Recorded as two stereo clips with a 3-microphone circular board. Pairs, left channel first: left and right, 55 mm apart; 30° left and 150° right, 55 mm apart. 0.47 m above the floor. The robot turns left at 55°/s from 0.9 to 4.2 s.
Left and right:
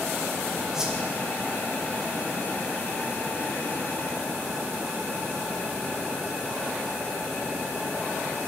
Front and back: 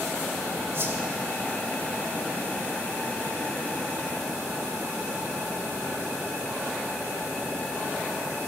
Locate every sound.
0.7 s a whoosh: 165° right, 1.6 m; by 1.0 s 170° right, 1.6 m